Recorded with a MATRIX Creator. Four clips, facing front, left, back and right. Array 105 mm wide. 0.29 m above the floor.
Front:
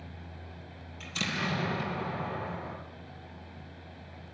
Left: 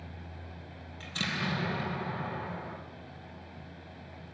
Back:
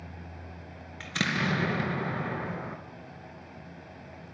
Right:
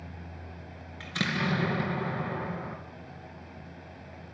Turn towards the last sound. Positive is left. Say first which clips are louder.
# right 5 dB, back 4 dB
turn(degrees=-155)